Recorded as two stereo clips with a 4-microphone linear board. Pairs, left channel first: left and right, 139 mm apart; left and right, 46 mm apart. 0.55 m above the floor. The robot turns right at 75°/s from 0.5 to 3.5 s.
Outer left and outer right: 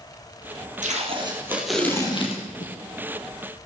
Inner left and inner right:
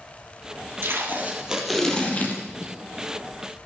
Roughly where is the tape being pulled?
Ahead right.